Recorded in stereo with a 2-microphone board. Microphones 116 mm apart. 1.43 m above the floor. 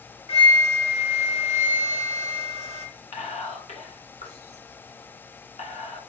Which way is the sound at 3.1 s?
85° left.